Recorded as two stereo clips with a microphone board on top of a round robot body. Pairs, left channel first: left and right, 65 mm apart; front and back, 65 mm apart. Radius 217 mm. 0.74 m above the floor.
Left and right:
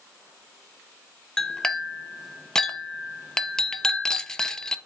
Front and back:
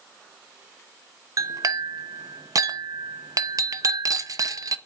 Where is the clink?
170° left, 0.6 m.